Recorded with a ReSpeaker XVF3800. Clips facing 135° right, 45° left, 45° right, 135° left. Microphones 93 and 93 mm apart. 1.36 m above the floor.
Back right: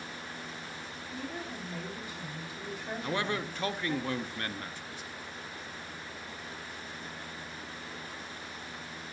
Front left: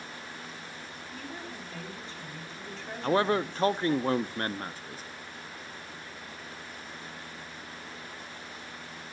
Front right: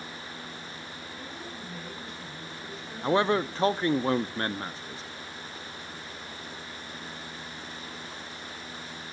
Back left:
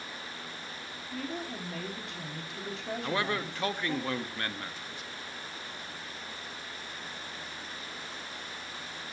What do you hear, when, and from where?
1.1 s a woman speaking: 145° left, 4.5 m
3.0 s a man speaking: 5° left, 0.6 m